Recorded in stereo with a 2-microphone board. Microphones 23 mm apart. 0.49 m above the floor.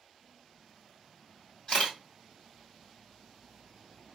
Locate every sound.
1.7 s a camera shutter: 50° left (ahead or behind), 1.9 m